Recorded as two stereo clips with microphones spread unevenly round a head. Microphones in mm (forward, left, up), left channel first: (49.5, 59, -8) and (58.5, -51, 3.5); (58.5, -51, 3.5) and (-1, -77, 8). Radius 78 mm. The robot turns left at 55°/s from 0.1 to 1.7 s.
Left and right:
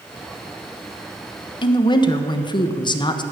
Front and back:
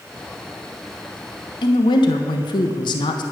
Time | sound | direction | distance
1.6 | a woman speaking | 50° left | 1.2 m